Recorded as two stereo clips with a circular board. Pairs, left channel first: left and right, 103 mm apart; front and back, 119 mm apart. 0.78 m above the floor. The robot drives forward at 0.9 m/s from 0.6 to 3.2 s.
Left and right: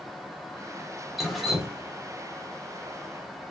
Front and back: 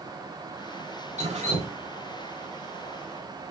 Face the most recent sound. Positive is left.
turn(degrees=180)